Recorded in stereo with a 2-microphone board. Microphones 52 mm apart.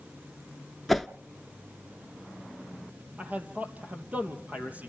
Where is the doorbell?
No doorbell in this recording.